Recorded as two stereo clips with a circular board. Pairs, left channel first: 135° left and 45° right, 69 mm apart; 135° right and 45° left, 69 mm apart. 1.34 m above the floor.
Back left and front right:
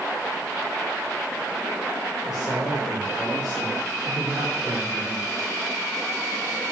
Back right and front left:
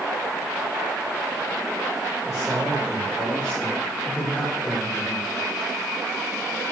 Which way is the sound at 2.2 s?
40° right.